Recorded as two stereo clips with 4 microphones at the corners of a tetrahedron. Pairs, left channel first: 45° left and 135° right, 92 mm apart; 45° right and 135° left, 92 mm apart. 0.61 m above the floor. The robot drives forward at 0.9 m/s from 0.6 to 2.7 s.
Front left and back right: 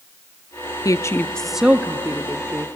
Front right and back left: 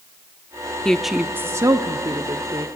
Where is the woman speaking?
30° left, 0.7 m; by 2.7 s 170° left, 1.4 m.